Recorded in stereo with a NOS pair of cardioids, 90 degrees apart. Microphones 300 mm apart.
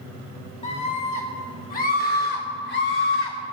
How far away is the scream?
About 5 m.